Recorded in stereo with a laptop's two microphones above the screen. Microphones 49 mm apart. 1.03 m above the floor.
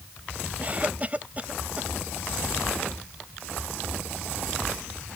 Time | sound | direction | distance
0.6 | a cough | 30° right (ahead or behind) | ?